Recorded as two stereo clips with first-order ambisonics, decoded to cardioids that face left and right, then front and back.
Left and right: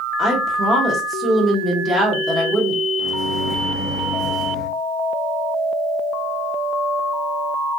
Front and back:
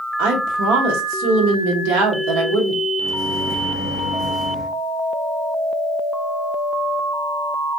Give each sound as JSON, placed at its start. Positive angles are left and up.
{"t": 0.2, "sound": "a woman speaking", "azimuth_deg": -165, "distance_m": 0.8}
{"t": 3.0, "sound": "a microwave", "azimuth_deg": 30, "distance_m": 0.6}